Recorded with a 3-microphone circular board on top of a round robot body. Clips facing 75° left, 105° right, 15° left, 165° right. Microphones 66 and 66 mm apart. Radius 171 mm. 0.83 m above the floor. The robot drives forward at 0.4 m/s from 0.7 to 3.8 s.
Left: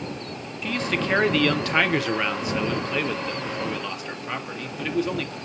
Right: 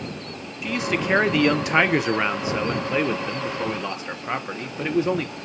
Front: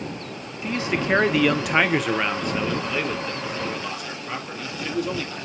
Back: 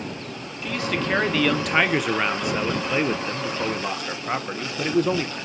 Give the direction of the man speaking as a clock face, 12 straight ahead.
1 o'clock.